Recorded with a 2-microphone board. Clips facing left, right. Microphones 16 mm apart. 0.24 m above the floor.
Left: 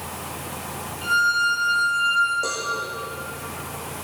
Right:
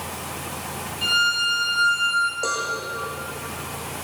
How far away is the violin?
About 7.5 m.